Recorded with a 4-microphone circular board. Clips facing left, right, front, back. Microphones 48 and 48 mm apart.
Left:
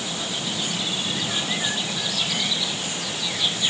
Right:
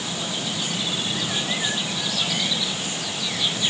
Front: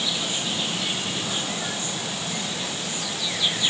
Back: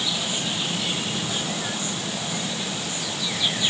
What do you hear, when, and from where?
Only background noise.